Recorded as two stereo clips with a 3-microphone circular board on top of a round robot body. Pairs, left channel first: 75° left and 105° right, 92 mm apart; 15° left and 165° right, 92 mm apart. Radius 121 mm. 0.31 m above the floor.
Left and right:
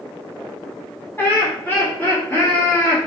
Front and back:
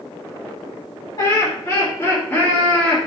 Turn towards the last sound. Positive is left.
turn(degrees=85)